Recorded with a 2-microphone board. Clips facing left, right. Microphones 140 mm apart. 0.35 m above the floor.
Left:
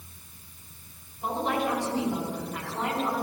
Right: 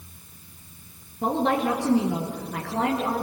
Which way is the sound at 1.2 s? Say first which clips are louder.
Right 5 dB; 80° right.